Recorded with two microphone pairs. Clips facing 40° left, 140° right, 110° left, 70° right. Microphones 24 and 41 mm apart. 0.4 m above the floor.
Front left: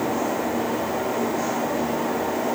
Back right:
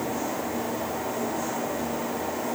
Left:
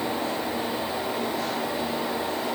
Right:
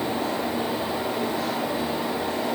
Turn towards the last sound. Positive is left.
No sound to turn to.